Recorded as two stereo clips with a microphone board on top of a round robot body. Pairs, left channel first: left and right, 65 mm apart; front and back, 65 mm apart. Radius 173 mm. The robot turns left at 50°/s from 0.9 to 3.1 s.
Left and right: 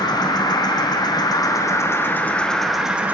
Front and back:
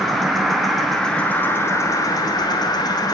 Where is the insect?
90° left, 1.3 m; by 3.1 s 20° right, 1.3 m.